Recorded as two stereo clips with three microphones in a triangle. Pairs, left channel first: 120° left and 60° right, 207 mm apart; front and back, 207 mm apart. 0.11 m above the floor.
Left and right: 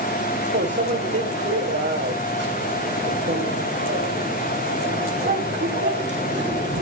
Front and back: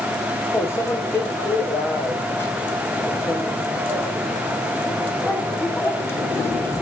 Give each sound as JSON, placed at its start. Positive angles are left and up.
{"t": 0.5, "sound": "a microwave", "azimuth_deg": -75, "distance_m": 4.5}